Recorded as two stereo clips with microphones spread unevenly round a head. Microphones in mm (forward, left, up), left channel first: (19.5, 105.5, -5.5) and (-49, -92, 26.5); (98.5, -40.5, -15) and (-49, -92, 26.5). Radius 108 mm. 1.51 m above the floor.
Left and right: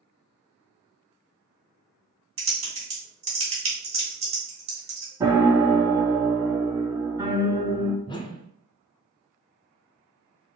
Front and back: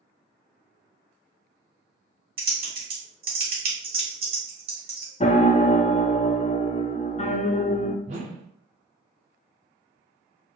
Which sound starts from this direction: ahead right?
A piano, at 5.2 s.